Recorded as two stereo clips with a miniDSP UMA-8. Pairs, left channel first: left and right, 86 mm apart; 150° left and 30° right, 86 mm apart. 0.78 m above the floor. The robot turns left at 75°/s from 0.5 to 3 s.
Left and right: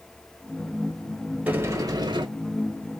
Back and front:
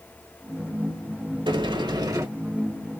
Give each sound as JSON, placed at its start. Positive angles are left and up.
{"t": 1.5, "sound": "a sliding door", "azimuth_deg": -20, "distance_m": 1.0}